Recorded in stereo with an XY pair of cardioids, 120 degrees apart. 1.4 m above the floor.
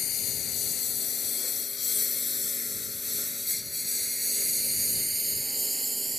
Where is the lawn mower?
55° left; by 6.2 s 10° right.